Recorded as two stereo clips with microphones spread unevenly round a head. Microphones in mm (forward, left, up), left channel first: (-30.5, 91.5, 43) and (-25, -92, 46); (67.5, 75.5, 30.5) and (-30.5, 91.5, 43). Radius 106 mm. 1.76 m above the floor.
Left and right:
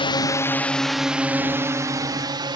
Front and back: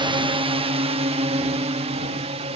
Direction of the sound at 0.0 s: 145° left.